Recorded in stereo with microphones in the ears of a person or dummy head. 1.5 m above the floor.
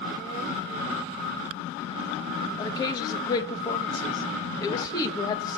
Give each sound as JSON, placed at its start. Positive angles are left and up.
{"t": 2.6, "sound": "a woman speaking", "side_deg": 25, "distance_m": 1.5}